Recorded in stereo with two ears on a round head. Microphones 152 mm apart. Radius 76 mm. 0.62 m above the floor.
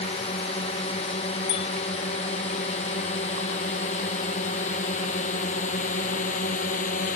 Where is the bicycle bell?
70° left (ahead or behind).